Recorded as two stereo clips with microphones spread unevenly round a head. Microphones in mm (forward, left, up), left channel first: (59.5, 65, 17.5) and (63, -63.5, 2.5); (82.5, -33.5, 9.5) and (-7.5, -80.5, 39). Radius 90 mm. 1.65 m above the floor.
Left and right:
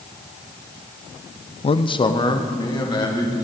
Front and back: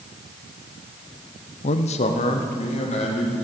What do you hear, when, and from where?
1.6 s a man speaking: 45° left, 0.5 m; by 3.5 s 35° left, 3 m